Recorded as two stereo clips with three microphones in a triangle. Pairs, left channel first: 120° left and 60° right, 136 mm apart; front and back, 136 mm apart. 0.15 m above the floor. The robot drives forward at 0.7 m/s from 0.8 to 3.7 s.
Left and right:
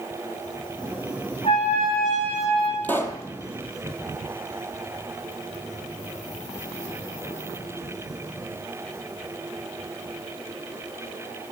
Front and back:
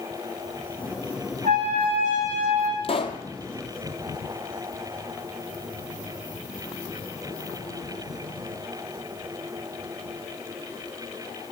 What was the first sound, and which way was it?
A trumpet, 160° left.